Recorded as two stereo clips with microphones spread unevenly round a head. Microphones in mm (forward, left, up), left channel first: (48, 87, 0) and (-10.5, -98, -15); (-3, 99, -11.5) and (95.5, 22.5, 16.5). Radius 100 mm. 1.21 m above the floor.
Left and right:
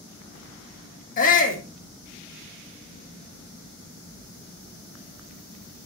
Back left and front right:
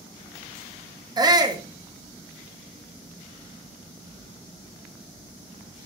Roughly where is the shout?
Ahead left.